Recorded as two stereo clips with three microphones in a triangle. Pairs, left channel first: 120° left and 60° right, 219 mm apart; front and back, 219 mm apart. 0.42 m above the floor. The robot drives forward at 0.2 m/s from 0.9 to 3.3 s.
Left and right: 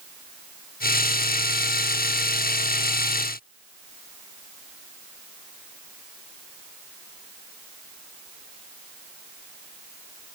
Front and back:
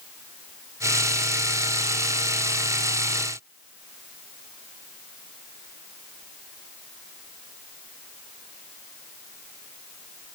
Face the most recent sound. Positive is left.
No sound to turn to.